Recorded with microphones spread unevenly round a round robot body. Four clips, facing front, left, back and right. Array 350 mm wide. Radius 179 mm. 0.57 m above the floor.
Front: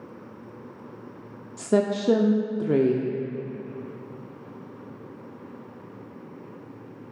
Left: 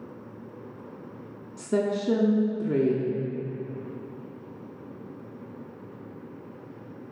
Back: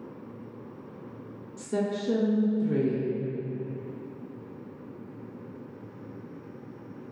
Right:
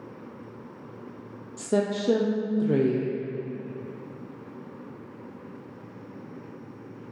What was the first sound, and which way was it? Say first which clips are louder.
A woman speaking: even, front 7 dB; 10° left.